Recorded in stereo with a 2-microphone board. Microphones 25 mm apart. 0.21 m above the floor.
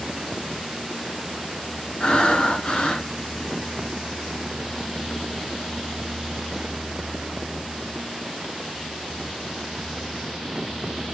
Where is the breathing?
35° left (ahead or behind), 0.8 m.